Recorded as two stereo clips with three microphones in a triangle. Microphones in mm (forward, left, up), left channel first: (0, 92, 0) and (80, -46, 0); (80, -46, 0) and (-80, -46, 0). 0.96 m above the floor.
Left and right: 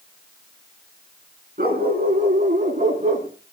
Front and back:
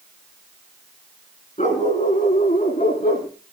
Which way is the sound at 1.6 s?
40° right.